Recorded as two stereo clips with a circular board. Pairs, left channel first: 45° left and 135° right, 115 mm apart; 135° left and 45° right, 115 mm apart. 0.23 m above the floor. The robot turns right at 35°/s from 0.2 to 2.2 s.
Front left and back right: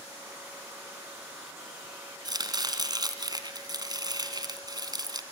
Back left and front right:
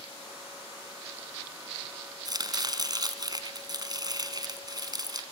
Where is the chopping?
90° right, 2 m.